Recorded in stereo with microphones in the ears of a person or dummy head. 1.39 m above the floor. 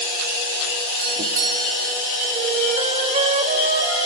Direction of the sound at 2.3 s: 40° right (ahead or behind).